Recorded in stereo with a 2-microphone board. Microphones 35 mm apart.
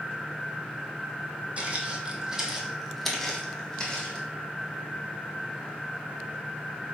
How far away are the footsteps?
About 1.2 m.